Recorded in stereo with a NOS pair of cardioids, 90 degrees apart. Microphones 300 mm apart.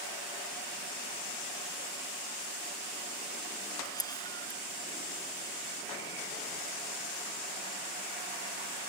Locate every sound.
3.9 s a camera shutter: 15° left